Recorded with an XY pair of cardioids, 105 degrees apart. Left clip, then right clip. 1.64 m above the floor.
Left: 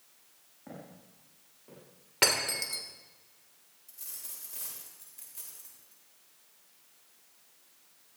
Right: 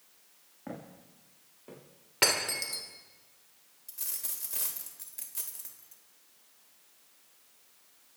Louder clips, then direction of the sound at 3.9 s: Right 6 dB; 55° right.